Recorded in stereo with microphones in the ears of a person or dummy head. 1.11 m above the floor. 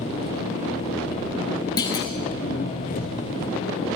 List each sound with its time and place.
0.0 s an engine running: 35° left (ahead or behind), 0.7 m
1.8 s a clunk: 20° left (ahead or behind), 0.6 m